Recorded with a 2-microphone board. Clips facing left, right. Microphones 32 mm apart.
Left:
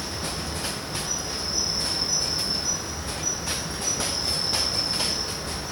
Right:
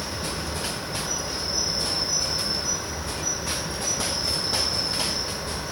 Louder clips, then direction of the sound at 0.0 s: Right 1 dB; 10° right (ahead or behind).